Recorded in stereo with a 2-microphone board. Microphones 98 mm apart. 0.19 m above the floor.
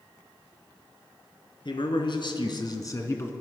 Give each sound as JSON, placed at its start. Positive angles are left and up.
{"t": 1.6, "sound": "a man speaking", "side_deg": 55, "distance_m": 2.5}